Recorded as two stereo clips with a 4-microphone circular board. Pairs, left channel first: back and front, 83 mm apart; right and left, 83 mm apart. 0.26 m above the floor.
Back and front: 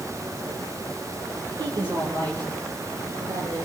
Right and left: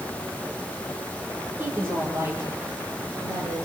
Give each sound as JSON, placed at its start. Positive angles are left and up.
{"t": 1.6, "sound": "a woman speaking", "azimuth_deg": 25, "distance_m": 7.5}